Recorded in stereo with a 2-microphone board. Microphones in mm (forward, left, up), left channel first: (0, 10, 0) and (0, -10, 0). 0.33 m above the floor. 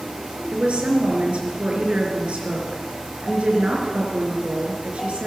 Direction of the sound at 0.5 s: 65° right (ahead or behind).